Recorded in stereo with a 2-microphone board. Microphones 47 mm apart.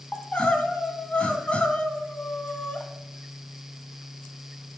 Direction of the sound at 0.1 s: 30° left (ahead or behind).